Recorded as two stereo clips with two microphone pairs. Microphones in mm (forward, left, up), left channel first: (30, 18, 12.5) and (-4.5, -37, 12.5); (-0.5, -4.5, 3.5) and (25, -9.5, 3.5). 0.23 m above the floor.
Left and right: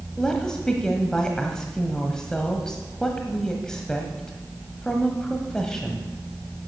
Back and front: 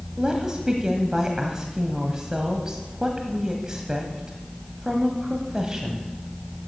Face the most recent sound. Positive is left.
turn(degrees=-10)